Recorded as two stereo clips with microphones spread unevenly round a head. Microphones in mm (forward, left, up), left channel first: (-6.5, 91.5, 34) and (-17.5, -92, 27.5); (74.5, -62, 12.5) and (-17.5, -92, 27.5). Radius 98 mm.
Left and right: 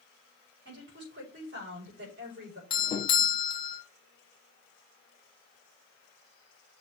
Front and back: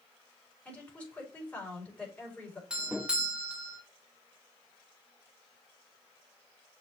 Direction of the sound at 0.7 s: 60° right.